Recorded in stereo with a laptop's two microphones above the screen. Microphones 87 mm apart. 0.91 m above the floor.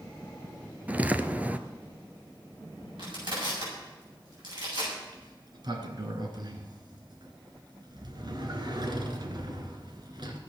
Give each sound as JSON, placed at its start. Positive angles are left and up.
{"t": 0.9, "sound": "footsteps", "side_deg": -20, "distance_m": 0.9}
{"t": 3.0, "sound": "crushing", "side_deg": -65, "distance_m": 7.5}
{"t": 5.0, "sound": "a sliding door", "side_deg": -55, "distance_m": 2.5}